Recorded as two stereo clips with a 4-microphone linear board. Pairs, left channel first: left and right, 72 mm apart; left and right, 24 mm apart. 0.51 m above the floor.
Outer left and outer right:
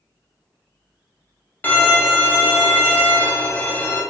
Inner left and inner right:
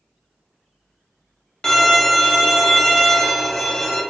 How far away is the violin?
About 0.5 m.